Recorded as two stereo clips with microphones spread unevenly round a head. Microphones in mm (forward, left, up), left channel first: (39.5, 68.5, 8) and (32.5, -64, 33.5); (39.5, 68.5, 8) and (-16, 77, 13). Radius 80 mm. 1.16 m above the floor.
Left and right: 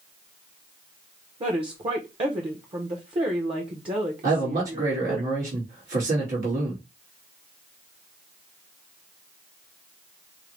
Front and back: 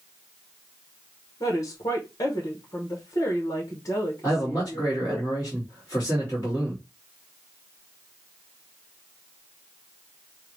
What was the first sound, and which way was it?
A woman speaking, 40° right.